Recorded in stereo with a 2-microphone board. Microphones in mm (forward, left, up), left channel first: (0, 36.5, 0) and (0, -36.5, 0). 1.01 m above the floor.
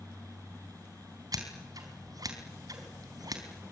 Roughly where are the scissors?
Right.